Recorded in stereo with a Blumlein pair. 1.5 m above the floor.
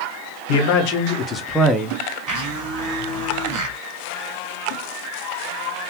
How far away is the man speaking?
About 0.9 m.